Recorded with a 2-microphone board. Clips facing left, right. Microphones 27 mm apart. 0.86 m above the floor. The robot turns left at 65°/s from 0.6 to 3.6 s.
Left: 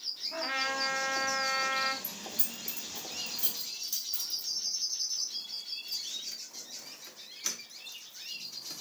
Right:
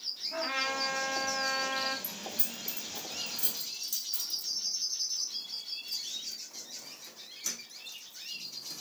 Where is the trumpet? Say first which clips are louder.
Even; straight behind, 0.9 m; by 1.9 s 95° left, 0.9 m.